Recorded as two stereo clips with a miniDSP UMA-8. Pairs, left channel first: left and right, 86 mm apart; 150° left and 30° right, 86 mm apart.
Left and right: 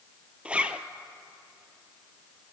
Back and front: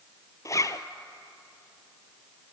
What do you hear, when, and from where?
0.5 s a zipper: 165° right, 0.6 m